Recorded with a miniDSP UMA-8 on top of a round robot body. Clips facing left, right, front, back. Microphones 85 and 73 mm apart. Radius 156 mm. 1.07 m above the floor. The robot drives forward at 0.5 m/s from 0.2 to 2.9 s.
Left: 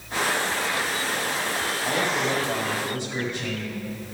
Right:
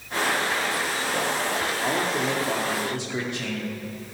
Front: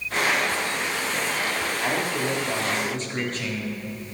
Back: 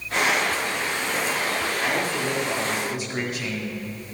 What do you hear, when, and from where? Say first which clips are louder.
1.8 s a man speaking: left 1 dB, front 1 dB; 85° right, 2.5 m; by 3.8 s 100° right, 2.5 m